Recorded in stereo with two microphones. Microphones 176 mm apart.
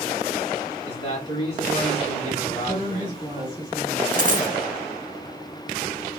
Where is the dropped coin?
55° right (ahead or behind), 0.6 m.